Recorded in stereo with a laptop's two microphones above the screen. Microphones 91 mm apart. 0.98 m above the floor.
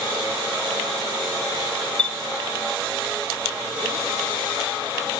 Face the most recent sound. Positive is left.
turn(degrees=15)  # may be behind; listen again after turning